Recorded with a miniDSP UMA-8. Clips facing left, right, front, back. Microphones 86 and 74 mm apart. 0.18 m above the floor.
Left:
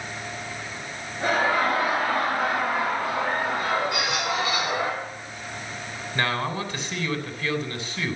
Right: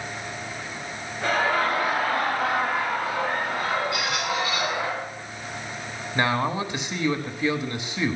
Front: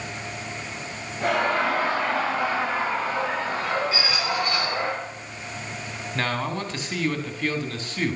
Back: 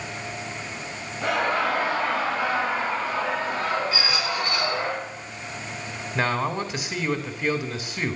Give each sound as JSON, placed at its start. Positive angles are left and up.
{"t": 1.2, "sound": "laughter", "azimuth_deg": 35, "distance_m": 4.5}
{"t": 3.9, "sound": "a squeak", "azimuth_deg": 65, "distance_m": 6.5}
{"t": 6.2, "sound": "a man speaking", "azimuth_deg": -125, "distance_m": 1.0}